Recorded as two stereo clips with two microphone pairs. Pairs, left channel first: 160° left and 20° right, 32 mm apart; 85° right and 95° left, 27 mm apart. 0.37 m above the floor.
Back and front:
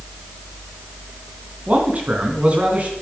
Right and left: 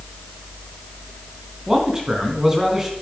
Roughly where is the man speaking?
Ahead left.